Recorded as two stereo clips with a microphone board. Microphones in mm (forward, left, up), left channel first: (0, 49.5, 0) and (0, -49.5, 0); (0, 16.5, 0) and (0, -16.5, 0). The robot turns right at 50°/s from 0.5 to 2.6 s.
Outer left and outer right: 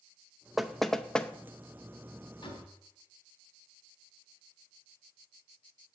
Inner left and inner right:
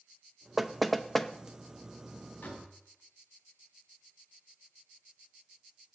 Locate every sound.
0.6 s knocking: centre (ahead or behind), 0.6 m; by 1.3 s 10° left (ahead or behind), 0.6 m
2.4 s a door slam: 55° left (ahead or behind), 4 m; by 2.7 s 45° left (ahead or behind), 4 m